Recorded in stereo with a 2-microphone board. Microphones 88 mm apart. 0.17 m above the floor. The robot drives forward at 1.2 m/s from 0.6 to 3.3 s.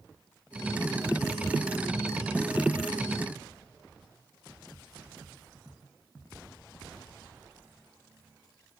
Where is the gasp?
No gasp in this recording.